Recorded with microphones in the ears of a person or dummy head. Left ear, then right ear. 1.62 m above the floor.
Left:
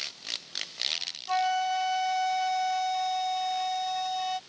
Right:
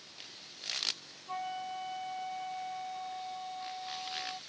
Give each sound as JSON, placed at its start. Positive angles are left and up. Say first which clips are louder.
{"t": 1.3, "sound": "a flute", "louder": "left 12 dB", "side_deg": 70}